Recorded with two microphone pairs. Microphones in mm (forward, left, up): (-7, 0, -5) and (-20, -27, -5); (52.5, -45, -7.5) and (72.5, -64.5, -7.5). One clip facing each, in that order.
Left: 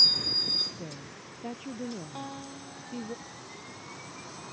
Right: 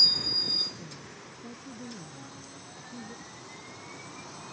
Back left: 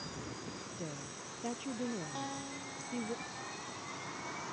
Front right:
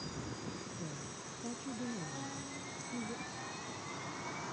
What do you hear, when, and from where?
0.8 s a woman speaking: 90° left; by 3.1 s 95° left
2.1 s a guitar: 80° left